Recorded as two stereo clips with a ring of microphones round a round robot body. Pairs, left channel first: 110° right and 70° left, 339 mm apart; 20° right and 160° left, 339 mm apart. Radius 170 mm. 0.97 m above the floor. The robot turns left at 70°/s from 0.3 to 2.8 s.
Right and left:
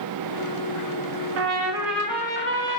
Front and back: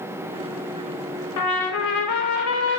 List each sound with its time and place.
1.4 s a trumpet: 20° left, 1.1 m; by 2.8 s 85° right, 1.1 m